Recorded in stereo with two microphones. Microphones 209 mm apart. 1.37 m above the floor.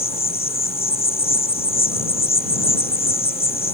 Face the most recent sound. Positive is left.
turn(degrees=30)  # may be behind; listen again after turning